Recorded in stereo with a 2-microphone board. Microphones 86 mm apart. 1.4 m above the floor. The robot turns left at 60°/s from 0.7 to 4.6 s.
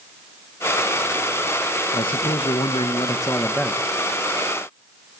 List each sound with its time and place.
1.9 s a man speaking: 120° left, 1.6 m; by 3.9 s straight ahead, 1.6 m